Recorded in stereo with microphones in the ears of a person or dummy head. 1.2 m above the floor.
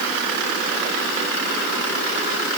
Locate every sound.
Only background noise.